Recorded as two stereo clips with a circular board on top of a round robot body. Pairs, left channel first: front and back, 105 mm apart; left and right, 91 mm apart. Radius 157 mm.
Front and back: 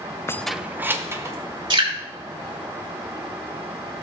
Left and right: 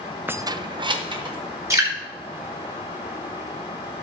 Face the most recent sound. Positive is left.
turn(degrees=-140)